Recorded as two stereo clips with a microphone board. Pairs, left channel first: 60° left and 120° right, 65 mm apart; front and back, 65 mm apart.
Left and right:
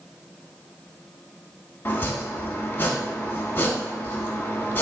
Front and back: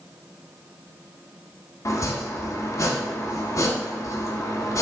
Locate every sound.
1.9 s chopping: 10° left, 0.9 m